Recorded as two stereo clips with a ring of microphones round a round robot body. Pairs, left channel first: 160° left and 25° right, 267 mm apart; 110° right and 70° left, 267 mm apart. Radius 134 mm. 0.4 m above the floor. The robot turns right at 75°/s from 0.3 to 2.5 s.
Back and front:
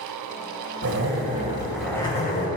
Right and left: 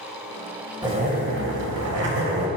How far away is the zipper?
About 2.5 m.